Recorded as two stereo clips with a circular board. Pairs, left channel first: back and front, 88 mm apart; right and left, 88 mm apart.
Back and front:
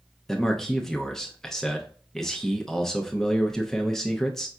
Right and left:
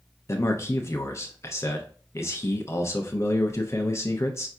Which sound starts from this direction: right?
A man speaking, at 0.3 s.